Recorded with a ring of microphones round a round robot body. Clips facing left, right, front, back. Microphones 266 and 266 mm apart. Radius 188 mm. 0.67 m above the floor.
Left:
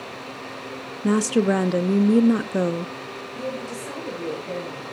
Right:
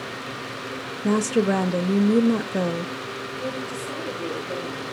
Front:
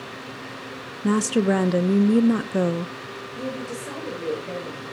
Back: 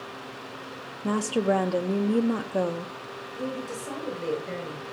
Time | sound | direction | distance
1.0 | a woman speaking | 30° left | 0.6 m
3.3 | a woman speaking | 80° left | 9 m